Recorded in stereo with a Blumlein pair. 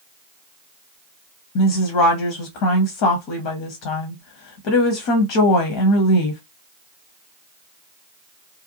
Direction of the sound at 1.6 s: 45° left.